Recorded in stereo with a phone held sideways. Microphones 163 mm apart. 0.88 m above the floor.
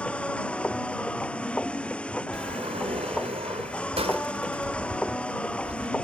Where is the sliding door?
40° right (ahead or behind).